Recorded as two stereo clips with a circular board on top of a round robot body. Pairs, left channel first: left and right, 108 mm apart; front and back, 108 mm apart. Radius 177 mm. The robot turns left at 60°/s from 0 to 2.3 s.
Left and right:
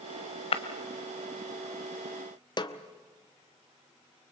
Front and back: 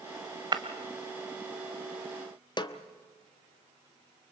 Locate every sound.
0.5 s breaking glass: 125° left, 1.1 m; by 0.6 s 120° left, 1.1 m
2.6 s a snare drum: 45° left, 1.2 m